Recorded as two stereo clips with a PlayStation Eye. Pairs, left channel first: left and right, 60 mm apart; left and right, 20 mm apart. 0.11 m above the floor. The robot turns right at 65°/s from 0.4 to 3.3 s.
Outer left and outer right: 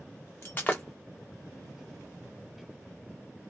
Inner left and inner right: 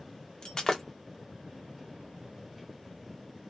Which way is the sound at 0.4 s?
45° left (ahead or behind).